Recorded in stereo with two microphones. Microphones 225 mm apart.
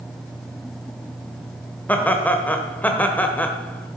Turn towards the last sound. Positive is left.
turn(degrees=5)  # may be behind; listen again after turning